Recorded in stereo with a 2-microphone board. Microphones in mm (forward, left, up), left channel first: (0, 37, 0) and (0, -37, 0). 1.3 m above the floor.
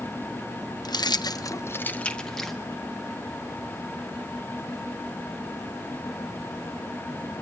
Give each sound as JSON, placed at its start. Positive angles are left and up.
{"t": 0.8, "sound": "keys jangling", "side_deg": 65, "distance_m": 0.8}